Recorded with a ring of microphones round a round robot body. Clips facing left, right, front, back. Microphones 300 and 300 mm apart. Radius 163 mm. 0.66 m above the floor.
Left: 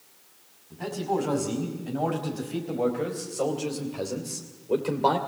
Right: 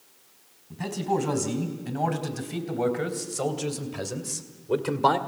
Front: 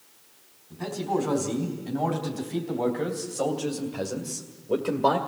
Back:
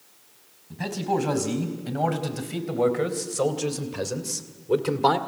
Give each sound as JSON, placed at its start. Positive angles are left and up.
{"t": 0.7, "sound": "a man speaking", "azimuth_deg": -140, "distance_m": 5.0}